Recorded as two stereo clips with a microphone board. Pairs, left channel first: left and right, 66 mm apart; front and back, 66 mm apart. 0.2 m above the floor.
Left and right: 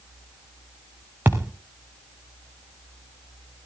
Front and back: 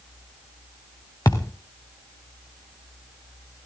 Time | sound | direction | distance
1.2 | a thud | 30° right | 1.9 m